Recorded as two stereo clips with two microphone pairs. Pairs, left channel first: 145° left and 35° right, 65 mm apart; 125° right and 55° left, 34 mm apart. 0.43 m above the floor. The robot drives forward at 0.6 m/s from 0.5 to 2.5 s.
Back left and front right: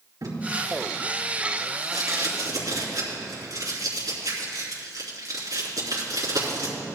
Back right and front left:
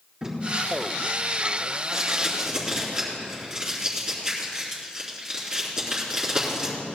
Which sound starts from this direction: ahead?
Tape being pulled, at 0.2 s.